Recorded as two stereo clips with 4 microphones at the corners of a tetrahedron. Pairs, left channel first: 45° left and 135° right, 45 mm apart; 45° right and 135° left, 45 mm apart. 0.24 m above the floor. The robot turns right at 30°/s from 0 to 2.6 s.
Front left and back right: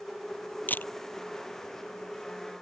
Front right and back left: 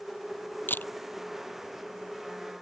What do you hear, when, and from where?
0.7 s a camera shutter: 5° right; by 0.9 s straight ahead